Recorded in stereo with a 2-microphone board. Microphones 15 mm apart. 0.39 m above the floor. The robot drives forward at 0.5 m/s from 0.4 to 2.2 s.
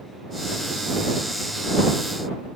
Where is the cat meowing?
No cat meowing in this recording.